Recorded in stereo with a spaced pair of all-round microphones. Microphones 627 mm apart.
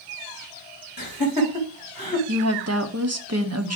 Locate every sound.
1.0 s laughter: 35° left (ahead or behind), 3 m
2.3 s a woman speaking: 25° right (ahead or behind), 1.0 m